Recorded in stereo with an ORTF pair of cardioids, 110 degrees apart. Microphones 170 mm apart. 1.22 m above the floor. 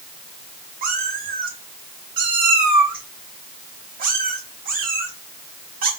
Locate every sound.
0.8 s a cat meowing: 55° right, 3 m